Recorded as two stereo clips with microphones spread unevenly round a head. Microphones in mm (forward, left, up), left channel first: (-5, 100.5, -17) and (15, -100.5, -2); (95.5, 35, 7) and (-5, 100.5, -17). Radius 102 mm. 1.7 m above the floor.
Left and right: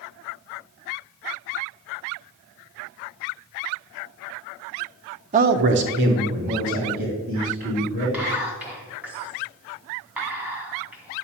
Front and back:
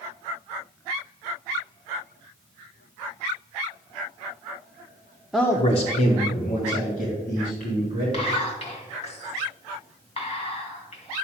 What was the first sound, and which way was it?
A man speaking, 120° right.